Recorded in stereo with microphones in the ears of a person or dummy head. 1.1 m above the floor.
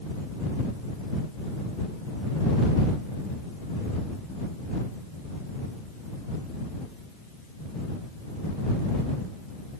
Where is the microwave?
No microwave in this recording.